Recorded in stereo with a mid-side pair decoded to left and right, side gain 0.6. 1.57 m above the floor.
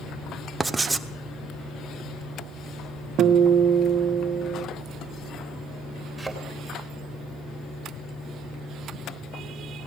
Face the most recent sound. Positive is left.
turn(degrees=-5)